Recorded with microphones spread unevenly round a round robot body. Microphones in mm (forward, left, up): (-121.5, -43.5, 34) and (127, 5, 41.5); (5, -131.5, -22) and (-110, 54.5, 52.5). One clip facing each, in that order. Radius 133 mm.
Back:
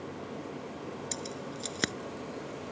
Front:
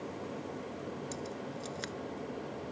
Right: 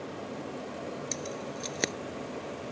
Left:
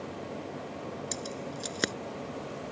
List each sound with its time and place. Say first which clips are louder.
1.1 s keys jangling: back 1 dB, right 1 dB; 155° right